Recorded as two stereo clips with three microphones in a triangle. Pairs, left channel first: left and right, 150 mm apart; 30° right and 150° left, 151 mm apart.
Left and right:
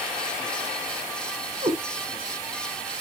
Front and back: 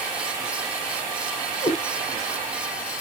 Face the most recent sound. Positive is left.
turn(degrees=-65)